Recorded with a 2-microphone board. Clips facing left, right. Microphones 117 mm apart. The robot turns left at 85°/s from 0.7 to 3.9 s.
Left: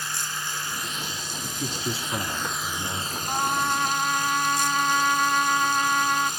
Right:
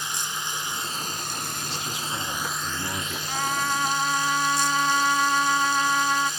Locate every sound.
0.0 s running water: 20° right, 1.9 m; by 6.4 s 65° left, 1.9 m
1.4 s a man speaking: 90° left, 1.9 m; by 3.2 s 60° right, 1.9 m
3.3 s a trumpet: 50° left, 1.0 m; by 6.3 s 5° right, 1.0 m